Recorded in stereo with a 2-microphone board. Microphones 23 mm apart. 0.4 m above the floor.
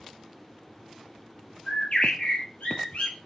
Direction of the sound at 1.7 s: 65° left (ahead or behind).